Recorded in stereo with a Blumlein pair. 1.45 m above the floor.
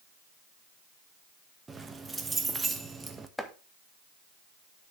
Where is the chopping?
5° left, 1.2 m.